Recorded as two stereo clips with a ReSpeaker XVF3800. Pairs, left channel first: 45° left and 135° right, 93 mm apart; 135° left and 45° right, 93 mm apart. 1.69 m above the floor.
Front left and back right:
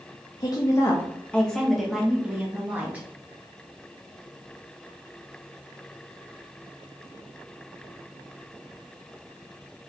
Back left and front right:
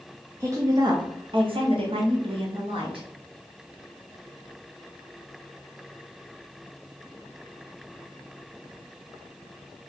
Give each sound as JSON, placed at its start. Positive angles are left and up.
{"t": 0.4, "sound": "a woman speaking", "azimuth_deg": 10, "distance_m": 0.6}